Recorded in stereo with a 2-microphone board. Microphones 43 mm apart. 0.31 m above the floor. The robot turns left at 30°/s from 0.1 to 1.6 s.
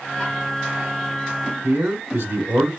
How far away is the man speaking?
About 2.5 m.